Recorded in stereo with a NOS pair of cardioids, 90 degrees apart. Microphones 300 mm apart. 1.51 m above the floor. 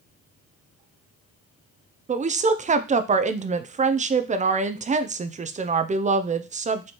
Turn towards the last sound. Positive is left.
turn(degrees=-25)